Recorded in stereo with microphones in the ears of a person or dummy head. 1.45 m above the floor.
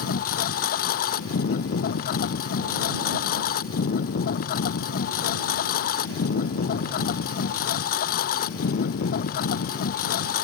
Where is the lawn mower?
45° left (ahead or behind).